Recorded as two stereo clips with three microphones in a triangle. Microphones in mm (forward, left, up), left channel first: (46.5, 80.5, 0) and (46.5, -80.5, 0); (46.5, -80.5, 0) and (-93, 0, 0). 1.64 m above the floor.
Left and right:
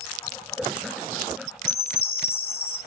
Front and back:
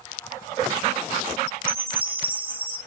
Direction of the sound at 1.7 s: 100° left.